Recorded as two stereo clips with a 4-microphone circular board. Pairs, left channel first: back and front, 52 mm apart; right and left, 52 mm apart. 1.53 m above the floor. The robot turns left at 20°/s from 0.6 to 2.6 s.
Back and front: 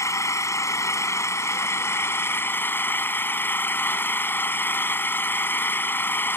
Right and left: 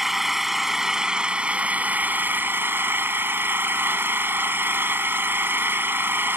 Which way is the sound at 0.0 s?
175° left.